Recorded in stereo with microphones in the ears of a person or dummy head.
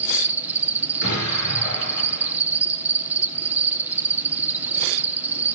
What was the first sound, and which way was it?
An insect, 5° right (ahead or behind).